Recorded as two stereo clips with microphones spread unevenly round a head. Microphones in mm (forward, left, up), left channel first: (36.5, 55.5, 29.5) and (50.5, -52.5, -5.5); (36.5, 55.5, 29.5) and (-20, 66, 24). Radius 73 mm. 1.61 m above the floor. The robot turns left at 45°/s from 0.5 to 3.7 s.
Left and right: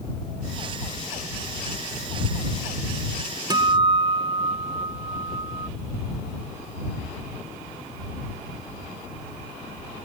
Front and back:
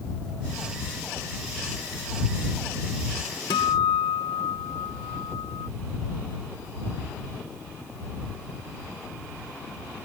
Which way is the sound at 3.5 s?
25° right.